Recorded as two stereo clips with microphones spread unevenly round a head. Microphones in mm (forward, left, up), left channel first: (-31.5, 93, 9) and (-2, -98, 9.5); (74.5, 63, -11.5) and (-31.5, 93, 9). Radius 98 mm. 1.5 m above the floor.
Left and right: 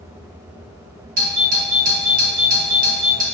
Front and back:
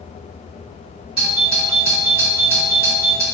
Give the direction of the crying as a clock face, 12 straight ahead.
I don't hear crying.